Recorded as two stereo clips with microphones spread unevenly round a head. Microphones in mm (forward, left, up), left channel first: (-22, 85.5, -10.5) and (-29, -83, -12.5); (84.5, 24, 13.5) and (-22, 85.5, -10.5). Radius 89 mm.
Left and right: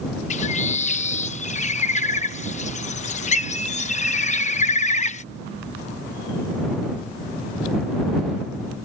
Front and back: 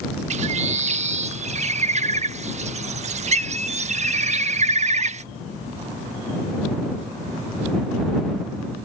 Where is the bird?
125° left.